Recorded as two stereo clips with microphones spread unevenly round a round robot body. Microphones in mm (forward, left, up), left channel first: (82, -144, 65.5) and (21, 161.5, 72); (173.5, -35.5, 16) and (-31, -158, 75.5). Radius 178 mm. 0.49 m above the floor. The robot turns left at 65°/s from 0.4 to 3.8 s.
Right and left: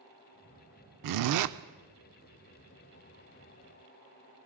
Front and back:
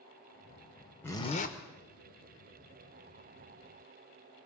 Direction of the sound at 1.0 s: 105° left.